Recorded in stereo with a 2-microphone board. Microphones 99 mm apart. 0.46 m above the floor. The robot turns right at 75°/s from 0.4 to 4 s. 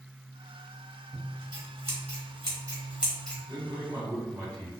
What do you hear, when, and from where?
1.1 s scissors: 25° right (ahead or behind), 1.1 m; by 3.4 s 15° left (ahead or behind), 1.1 m
3.5 s a man speaking: 90° right, 1.7 m; by 4.8 s 55° right, 1.7 m